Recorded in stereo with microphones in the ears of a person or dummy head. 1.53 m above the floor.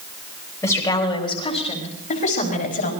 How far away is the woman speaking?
About 2.5 m.